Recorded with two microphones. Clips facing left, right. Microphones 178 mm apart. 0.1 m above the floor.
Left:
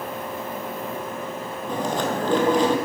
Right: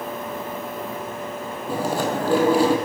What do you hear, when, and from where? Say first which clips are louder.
1.7 s chewing: right 1 dB; 10° right (ahead or behind), 0.7 m